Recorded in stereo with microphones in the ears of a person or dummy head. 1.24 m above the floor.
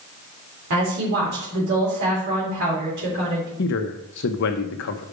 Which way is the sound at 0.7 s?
60° right (ahead or behind).